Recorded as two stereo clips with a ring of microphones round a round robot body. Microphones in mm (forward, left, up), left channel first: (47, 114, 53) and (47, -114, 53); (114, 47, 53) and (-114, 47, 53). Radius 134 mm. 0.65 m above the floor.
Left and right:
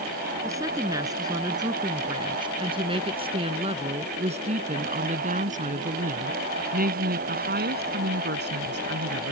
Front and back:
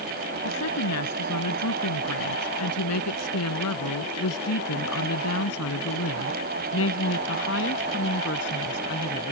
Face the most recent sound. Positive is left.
turn(degrees=-50)